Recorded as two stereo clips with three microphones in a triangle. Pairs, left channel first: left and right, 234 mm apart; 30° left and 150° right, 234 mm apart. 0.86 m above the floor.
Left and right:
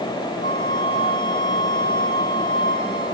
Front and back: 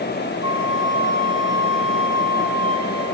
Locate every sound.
0.4 s a flute: 140° left, 2.5 m